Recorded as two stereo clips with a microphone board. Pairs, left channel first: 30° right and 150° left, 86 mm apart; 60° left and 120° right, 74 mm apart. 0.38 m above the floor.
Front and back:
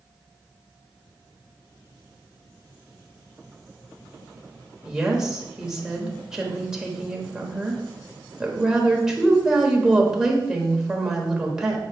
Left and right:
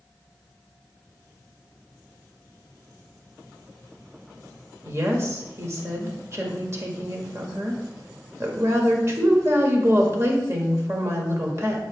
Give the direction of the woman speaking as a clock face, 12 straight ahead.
4 o'clock.